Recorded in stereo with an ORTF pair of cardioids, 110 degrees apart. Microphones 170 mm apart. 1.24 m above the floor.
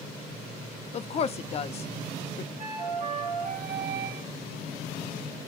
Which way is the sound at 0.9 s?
40° left.